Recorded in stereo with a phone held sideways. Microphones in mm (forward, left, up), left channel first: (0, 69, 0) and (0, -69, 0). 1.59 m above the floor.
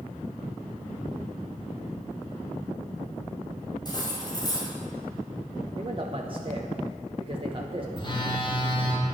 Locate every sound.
3.9 s cutlery clinking: 30° left (ahead or behind), 5.5 m
5.8 s a man speaking: 40° right (ahead or behind), 1.0 m
8.0 s a phone buzzing: 35° left (ahead or behind), 3.5 m